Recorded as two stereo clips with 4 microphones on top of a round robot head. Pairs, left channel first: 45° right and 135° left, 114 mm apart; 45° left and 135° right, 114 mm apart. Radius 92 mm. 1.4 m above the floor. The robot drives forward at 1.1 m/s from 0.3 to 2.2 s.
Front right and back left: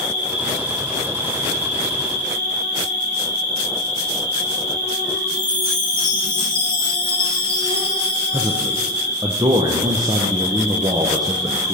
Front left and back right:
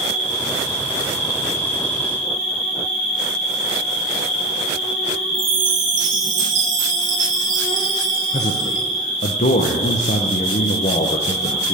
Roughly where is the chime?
Behind right.